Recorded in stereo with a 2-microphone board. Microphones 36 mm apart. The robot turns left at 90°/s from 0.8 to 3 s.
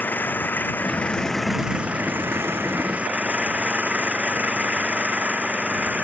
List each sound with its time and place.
0.0 s an engine running: 60° left; by 6.0 s 140° right